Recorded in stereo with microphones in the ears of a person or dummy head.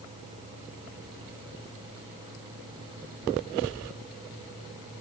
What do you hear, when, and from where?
Only background noise.